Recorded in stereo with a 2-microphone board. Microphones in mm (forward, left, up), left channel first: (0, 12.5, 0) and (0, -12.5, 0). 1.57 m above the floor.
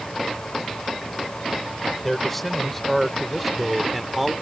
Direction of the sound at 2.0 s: 10° left (ahead or behind).